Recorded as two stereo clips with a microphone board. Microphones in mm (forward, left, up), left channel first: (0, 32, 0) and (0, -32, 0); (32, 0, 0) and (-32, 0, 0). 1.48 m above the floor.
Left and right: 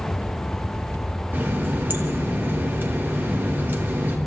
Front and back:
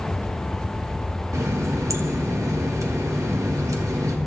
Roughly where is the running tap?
Behind right.